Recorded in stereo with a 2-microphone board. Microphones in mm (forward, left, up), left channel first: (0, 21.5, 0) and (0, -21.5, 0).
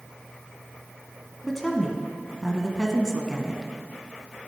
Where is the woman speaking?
10° left (ahead or behind), 1.3 m.